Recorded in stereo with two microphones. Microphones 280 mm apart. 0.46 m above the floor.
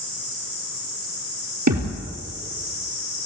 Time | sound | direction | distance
1.7 | a thud | 80° right | 4 m